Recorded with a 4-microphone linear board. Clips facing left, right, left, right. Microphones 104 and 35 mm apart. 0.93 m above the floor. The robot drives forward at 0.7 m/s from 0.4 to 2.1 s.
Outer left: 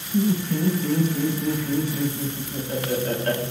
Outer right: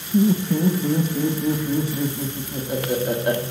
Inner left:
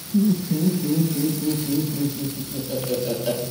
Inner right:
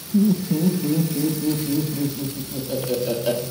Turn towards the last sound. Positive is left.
turn(degrees=-15)  # may be behind; listen again after turning